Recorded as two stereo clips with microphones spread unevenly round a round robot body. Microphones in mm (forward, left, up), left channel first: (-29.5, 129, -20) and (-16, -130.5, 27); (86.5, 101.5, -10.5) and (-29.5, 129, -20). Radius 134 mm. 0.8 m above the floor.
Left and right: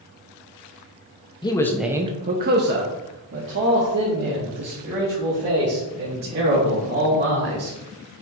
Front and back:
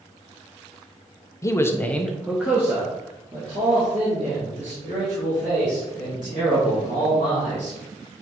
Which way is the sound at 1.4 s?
45° left.